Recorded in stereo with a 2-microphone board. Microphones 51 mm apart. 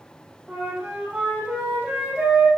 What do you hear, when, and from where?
0.5 s a flute: 20° right (ahead or behind), 5 m